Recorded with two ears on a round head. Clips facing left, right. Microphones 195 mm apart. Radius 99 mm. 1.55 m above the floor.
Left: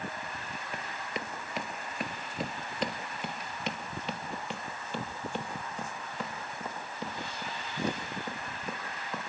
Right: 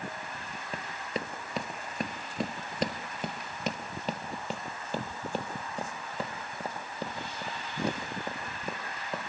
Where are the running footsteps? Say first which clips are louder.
Right 4 dB; 25° right (ahead or behind), 1.8 m; by 9.3 s 30° right (ahead or behind), 5 m.